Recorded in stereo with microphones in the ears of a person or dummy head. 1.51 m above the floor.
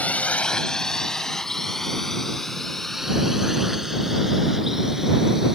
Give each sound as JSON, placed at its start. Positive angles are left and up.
{"t": 0.0, "sound": "a drone", "side_deg": 5}